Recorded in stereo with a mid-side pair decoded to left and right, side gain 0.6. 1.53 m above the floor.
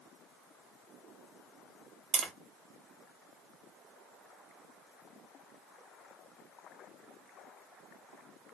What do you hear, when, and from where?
2.1 s tapping: 50° right, 0.9 m